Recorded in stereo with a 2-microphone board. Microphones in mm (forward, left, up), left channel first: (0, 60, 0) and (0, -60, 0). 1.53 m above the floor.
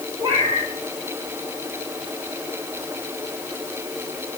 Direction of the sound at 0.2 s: 55° right (ahead or behind).